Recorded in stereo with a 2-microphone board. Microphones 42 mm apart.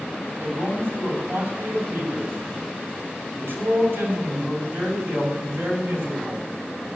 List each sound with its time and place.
0.4 s a man speaking: 70° right (ahead or behind), 7.5 m